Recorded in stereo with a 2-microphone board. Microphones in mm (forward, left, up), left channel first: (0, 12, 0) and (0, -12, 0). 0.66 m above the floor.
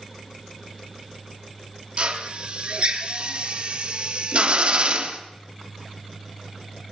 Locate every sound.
2.0 s a drill: 45° right (ahead or behind), 1.2 m